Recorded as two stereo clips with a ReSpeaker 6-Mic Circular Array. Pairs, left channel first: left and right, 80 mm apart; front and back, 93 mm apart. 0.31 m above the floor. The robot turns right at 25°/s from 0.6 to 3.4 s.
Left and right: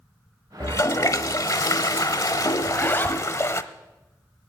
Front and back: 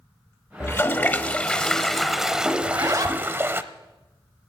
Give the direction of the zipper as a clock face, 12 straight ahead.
8 o'clock.